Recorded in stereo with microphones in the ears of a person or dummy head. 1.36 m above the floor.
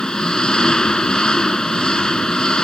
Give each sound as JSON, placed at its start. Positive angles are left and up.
{"t": 0.0, "sound": "an engine running", "side_deg": 0}